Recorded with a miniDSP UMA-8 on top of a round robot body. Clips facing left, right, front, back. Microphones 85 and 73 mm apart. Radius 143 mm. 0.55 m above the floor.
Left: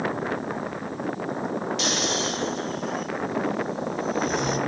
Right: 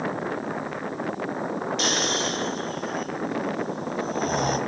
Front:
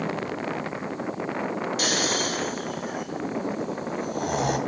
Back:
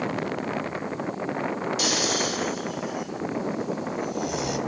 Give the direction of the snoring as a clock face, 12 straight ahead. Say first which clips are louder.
Right 1 dB, front 1 dB; 1 o'clock.